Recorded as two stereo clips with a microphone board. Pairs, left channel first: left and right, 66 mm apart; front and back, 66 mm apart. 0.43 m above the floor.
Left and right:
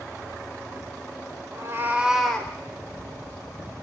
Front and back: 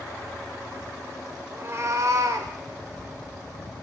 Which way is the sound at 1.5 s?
125° right.